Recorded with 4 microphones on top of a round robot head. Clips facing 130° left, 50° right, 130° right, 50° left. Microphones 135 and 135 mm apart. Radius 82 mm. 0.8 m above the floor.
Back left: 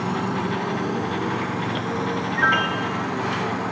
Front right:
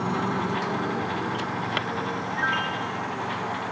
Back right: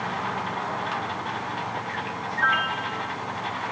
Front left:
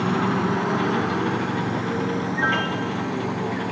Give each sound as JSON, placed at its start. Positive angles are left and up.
{"t": 0.0, "sound": "a motorcycle", "azimuth_deg": 45}
{"t": 2.4, "sound": "a piano", "azimuth_deg": 100}